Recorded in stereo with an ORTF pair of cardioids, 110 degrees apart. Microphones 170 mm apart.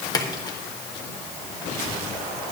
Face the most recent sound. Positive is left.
turn(degrees=20)